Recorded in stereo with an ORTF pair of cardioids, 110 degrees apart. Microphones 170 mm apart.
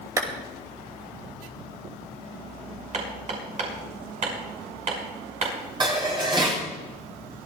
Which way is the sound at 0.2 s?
20° right.